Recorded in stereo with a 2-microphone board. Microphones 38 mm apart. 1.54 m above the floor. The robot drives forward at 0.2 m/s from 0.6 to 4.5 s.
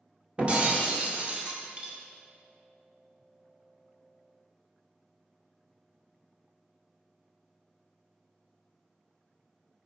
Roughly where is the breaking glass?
Right.